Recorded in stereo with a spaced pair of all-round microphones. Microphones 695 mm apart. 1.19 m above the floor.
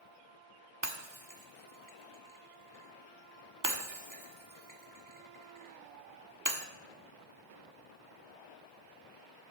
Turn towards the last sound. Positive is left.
turn(degrees=-25)  # may be behind; listen again after turning